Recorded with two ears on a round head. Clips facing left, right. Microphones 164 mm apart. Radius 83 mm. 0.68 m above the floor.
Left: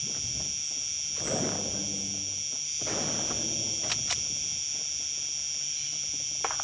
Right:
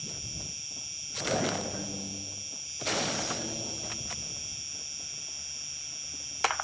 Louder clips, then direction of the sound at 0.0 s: Left 1 dB; 15° left (ahead or behind).